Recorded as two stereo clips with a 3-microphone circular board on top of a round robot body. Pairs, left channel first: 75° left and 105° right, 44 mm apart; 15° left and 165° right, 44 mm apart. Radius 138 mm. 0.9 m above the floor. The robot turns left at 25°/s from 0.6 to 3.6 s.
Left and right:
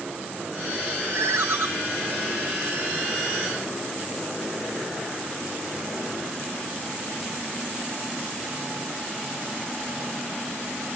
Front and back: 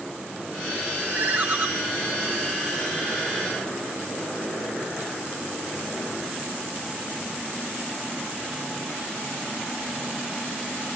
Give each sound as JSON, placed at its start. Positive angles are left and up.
{"t": 1.1, "sound": "a ringtone", "azimuth_deg": -110, "distance_m": 0.8}